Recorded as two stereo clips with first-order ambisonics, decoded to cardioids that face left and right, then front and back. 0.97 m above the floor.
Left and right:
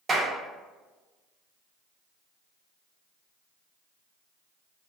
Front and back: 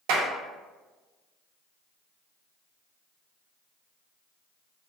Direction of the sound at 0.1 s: 165° right.